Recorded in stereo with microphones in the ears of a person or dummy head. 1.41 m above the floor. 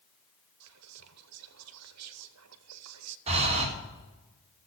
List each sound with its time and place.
0.6 s whispering: 75° right (ahead or behind), 0.7 m
3.3 s breathing: 35° right (ahead or behind), 2 m